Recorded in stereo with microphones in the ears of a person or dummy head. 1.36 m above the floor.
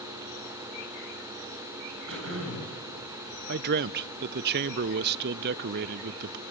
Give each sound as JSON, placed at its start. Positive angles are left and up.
{"t": 2.1, "sound": "throat clearing", "side_deg": -75, "distance_m": 9.0}
{"t": 3.5, "sound": "a man speaking", "side_deg": -55, "distance_m": 0.6}